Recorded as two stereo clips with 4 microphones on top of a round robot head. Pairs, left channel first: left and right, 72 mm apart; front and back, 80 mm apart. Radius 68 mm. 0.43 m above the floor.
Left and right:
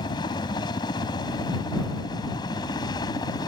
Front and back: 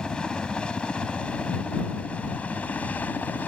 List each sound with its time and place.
0.0 s a helicopter: 80° left; by 3.5 s 70° left